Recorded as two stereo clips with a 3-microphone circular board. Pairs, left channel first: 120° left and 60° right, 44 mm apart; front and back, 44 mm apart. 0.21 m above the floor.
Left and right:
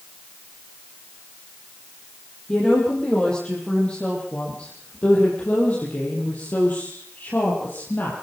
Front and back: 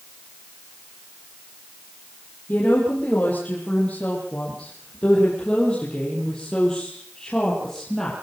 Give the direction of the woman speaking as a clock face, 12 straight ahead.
10 o'clock.